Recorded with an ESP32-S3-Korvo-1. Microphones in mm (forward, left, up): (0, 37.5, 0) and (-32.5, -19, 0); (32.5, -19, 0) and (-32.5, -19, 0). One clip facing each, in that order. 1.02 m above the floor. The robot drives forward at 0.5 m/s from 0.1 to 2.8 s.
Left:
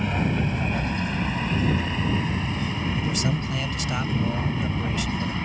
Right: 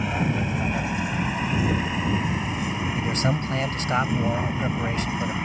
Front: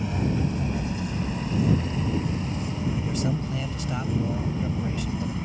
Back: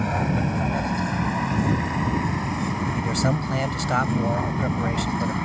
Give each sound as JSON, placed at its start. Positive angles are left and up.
{"t": 0.0, "sound": "a vehicle", "azimuth_deg": 155}
{"t": 2.9, "sound": "a man speaking", "azimuth_deg": -170}